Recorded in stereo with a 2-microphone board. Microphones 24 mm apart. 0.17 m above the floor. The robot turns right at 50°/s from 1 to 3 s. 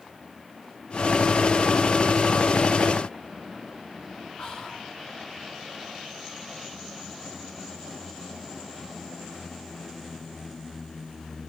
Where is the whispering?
45° left (ahead or behind), 1.9 m.